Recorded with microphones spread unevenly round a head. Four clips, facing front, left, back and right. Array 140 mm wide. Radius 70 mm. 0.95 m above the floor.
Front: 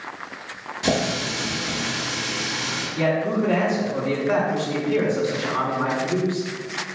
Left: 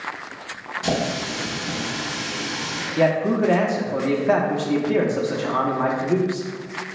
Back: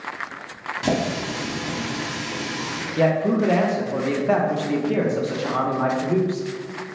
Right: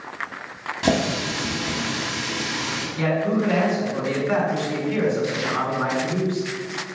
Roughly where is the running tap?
Right.